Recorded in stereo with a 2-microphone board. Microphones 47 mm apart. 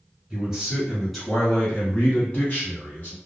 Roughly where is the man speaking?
Centre.